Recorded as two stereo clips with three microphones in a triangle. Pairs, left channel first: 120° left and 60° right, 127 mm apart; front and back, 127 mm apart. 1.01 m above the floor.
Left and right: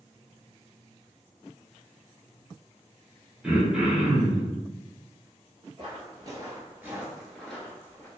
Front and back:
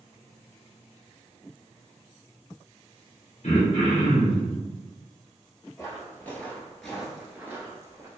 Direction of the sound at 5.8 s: 50° right.